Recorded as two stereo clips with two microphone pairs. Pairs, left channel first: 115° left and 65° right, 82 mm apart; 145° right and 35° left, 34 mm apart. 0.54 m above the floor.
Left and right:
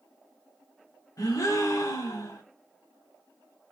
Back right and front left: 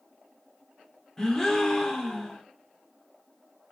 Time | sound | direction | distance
1.2 | a gasp | 145° left | 1.1 m